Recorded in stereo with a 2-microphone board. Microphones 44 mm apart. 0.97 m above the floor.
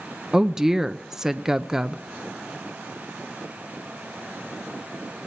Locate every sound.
0.3 s a woman speaking: 15° right (ahead or behind), 0.6 m